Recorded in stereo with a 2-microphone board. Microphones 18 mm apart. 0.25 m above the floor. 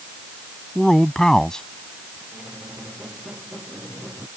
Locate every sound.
0.8 s a man speaking: 35° left (ahead or behind); by 2.2 s 45° left (ahead or behind)
2.3 s a squeak: 65° right (ahead or behind)